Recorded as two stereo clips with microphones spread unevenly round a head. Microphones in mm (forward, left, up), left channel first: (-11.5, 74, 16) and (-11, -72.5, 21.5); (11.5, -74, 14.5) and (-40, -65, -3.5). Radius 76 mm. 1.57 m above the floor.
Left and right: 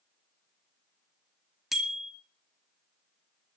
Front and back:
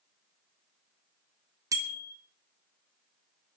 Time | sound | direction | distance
1.7 | a bicycle bell | straight behind | 2.5 m